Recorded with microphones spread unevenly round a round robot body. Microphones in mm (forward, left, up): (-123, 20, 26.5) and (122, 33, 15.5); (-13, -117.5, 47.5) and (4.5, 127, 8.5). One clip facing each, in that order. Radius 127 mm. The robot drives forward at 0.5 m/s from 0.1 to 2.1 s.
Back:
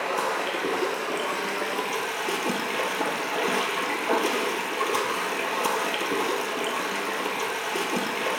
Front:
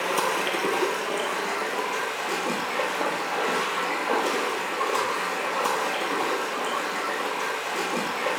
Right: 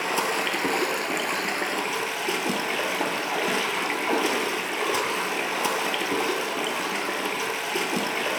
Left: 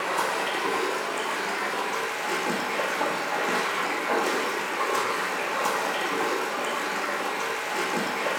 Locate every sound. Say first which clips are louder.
0.0 s running water: front 1 dB, right 2 dB; 65° right, 1.0 m; by 8.4 s 120° right, 1.1 m